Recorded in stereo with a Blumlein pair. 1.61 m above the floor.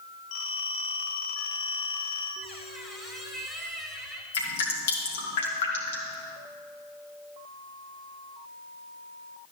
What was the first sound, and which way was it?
A phone ringing, 40° left.